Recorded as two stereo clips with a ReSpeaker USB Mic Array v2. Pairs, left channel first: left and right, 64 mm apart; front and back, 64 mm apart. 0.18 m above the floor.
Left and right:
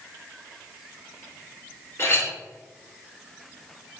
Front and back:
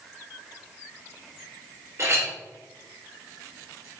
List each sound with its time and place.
2.0 s a clink: 135° left, 1.8 m